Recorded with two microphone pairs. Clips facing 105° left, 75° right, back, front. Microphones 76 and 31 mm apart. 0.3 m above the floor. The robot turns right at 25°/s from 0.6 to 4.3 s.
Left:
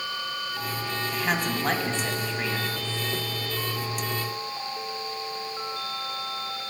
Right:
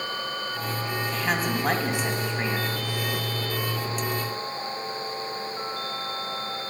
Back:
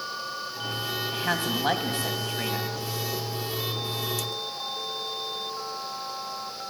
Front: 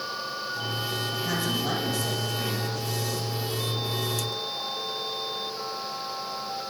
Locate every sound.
1.1 s a woman speaking: 165° right, 2 m; by 2.8 s 125° right, 2 m